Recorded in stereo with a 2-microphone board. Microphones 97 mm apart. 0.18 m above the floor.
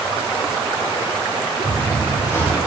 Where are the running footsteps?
25° left (ahead or behind), 4 m.